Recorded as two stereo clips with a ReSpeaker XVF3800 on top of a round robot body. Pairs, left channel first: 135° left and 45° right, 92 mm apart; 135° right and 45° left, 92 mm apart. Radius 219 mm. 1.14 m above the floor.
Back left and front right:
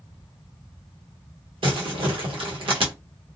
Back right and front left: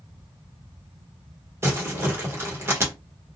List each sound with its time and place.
1.6 s crumpling: 20° right, 1.3 m